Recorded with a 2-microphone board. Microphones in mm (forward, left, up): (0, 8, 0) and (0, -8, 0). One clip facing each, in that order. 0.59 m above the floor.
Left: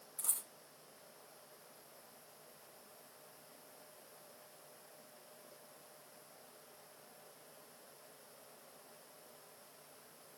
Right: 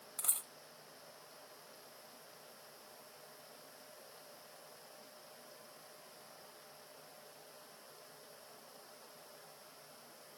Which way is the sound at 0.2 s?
75° right (ahead or behind).